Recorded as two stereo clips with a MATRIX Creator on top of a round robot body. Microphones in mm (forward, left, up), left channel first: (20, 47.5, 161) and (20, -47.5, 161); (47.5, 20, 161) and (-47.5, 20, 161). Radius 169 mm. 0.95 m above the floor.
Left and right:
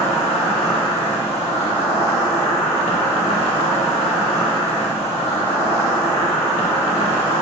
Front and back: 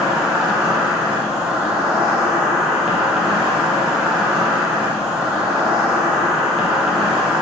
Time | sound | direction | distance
0.0 | an insect | 95° left | 0.9 m